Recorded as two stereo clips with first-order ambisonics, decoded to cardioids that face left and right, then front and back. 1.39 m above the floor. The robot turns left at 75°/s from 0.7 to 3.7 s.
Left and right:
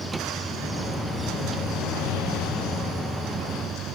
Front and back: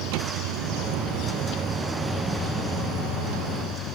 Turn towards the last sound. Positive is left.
turn(degrees=-35)